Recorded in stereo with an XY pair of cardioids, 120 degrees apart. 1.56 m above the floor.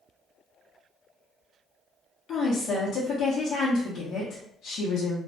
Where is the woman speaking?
60° left, 0.8 m.